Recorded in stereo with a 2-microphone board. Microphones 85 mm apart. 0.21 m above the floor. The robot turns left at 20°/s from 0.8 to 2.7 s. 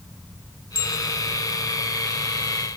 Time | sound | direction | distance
0.8 | a bicycle bell | 70° left (ahead or behind) | 5 m